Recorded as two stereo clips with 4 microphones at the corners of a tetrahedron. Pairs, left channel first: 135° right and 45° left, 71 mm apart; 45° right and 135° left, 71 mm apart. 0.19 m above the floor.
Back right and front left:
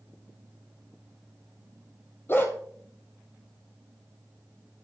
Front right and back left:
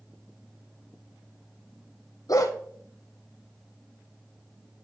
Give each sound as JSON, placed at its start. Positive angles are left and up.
{"t": 2.3, "sound": "a dog barking", "azimuth_deg": -80, "distance_m": 1.7}